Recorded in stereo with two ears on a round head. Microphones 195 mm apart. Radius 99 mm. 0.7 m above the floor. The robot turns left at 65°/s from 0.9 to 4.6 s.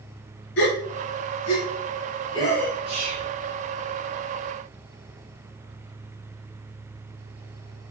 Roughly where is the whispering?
Right.